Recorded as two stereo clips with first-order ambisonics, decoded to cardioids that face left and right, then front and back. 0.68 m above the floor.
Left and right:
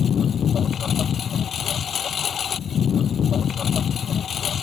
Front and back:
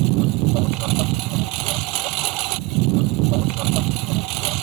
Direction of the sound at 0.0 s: 155° left.